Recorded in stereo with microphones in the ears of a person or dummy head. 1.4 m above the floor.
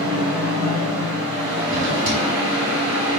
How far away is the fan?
About 1.5 m.